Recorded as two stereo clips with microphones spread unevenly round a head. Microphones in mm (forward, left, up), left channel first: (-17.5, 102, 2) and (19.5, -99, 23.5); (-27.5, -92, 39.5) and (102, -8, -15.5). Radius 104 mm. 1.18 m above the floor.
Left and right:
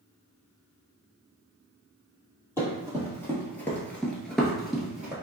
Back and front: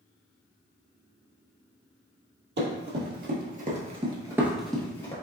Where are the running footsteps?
20° left, 2.0 m; by 5.1 s 155° right, 1.4 m.